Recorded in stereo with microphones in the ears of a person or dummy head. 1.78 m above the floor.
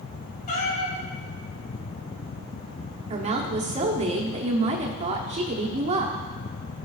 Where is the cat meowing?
45° left (ahead or behind), 1.8 m.